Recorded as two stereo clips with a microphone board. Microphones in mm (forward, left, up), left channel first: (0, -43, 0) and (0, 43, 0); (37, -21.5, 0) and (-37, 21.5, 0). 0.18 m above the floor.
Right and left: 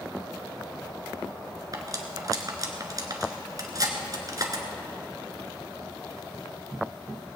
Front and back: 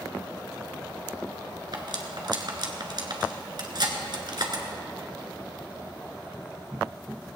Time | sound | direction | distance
1.7 | cutlery clinking | 130° left | 1.5 m